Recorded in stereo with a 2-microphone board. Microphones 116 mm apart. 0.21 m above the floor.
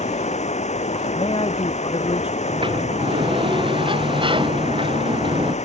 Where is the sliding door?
45° right (ahead or behind).